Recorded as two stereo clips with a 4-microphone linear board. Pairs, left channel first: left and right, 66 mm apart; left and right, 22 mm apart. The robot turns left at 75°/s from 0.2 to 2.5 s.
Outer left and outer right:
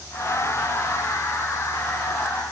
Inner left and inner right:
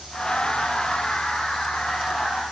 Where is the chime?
I don't hear a chime.